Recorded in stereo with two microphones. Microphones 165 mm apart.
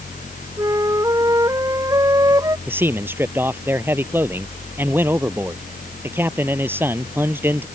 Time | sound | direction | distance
0.6 | a flute | 20° right (ahead or behind) | ?
2.7 | a man speaking | 15° right (ahead or behind) | ?